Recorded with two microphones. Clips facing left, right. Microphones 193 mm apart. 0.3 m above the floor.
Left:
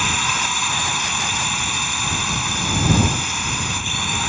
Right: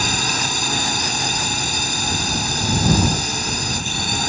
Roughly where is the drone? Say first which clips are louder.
Right 2 dB; right.